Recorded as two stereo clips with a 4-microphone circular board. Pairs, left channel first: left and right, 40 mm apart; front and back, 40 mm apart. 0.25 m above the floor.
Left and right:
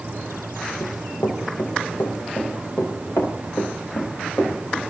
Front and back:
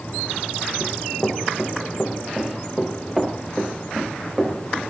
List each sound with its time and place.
0.8 s running footsteps: 70° left, 5.5 m; by 4.8 s 110° left, 8 m